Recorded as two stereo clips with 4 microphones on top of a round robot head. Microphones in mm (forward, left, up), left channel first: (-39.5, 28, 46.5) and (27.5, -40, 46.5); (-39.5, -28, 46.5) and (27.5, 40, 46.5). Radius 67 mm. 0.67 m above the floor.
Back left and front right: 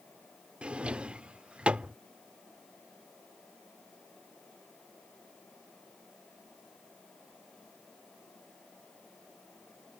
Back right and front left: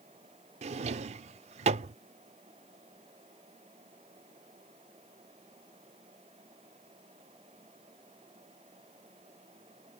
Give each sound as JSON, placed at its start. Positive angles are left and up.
{"t": 0.6, "sound": "a drawer", "azimuth_deg": 35}